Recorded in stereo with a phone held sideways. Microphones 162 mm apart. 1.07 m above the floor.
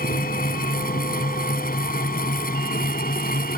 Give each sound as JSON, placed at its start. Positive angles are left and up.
{"t": 0.0, "sound": "a fan", "side_deg": 65}